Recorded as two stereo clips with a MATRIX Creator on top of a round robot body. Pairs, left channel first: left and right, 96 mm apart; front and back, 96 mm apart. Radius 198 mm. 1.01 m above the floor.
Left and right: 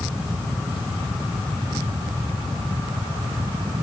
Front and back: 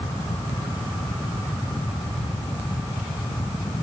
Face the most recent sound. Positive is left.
No sound to turn to.